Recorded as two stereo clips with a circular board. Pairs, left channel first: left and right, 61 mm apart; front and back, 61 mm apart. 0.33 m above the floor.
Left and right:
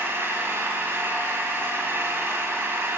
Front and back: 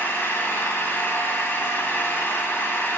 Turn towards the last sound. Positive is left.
turn(degrees=-45)